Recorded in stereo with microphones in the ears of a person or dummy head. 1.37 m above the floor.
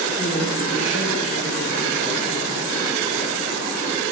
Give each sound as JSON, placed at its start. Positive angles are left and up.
{"t": 0.2, "sound": "a woman speaking", "side_deg": 35, "distance_m": 4.5}